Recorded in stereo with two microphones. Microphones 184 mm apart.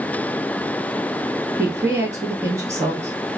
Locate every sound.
1.6 s a woman speaking: 15° right (ahead or behind), 1.0 m